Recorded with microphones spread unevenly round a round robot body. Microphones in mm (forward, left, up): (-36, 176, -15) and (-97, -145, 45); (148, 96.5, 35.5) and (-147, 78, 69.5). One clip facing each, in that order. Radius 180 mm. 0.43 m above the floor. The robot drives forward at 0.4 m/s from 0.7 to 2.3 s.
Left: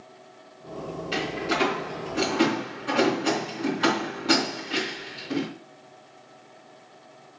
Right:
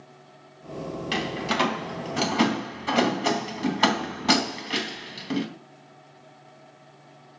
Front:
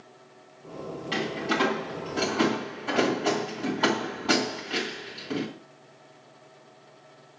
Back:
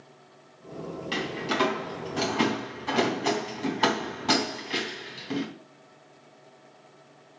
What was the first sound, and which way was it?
A door slam, 100° right.